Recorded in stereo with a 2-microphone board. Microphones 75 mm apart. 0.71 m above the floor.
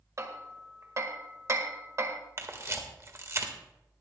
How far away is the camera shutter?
About 1.6 m.